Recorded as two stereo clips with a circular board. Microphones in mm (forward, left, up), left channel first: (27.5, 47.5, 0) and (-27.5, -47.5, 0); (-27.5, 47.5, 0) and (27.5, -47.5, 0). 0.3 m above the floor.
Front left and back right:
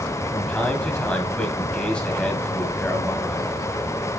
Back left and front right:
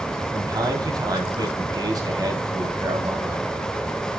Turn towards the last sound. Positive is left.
turn(degrees=-20)